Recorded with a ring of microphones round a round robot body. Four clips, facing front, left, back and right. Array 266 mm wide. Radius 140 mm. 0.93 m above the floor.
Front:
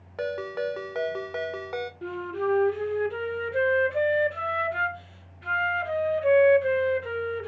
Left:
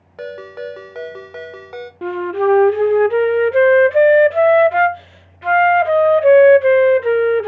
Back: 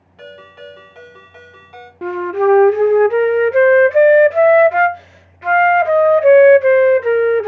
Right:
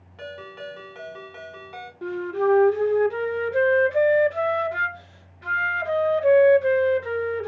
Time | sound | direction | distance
0.2 | a ringtone | 45° left | 1.9 m
2.0 | a flute | 145° left | 0.5 m